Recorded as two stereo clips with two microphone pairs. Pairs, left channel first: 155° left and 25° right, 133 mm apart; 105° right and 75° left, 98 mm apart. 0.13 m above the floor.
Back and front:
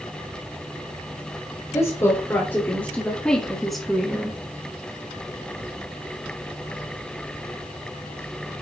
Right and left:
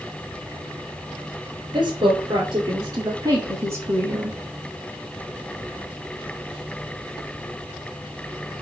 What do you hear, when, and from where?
1.7 s a woman speaking: 100° left, 2 m; by 4.4 s 35° left, 1.4 m